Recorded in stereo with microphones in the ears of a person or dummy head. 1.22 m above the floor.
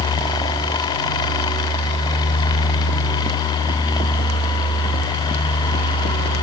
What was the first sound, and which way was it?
Only background noise.